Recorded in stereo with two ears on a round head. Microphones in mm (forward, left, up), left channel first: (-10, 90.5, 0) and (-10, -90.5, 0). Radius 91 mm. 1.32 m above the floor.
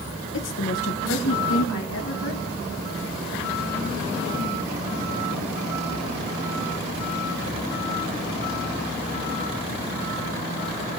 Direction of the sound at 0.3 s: 65° left (ahead or behind).